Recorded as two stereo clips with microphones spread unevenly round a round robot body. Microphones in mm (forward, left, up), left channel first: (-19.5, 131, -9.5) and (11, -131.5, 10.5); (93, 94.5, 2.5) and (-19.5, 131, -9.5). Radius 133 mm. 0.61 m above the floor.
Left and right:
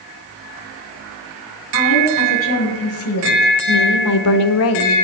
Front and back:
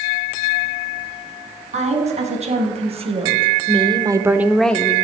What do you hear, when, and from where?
1.7 s a woman speaking: 140° left, 5 m; by 5.0 s 50° left, 1.4 m